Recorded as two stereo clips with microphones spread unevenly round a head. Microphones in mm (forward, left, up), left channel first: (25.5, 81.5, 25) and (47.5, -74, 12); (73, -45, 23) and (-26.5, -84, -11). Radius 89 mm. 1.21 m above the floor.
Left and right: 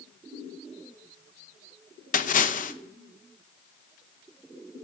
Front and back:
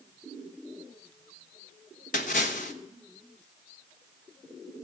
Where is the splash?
60° left, 1.0 m.